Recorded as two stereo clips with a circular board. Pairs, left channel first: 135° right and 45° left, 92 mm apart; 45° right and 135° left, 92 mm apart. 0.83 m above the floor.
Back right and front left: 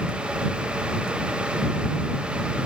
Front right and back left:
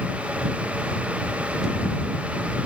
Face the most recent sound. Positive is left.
No sound to turn to.